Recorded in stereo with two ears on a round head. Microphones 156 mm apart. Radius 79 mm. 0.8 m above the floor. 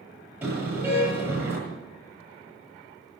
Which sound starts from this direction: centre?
A car horn, at 0.4 s.